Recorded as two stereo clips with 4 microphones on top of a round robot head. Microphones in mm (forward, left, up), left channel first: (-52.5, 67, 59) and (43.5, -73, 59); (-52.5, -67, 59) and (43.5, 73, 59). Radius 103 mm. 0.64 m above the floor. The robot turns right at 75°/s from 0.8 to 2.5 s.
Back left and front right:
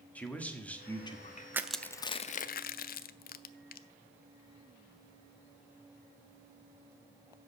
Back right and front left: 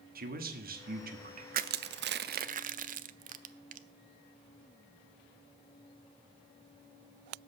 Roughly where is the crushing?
Ahead.